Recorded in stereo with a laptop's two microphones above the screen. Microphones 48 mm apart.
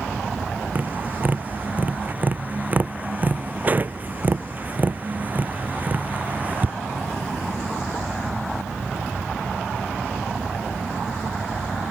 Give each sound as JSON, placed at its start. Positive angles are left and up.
{"t": 0.8, "sound": "tapping", "side_deg": -30}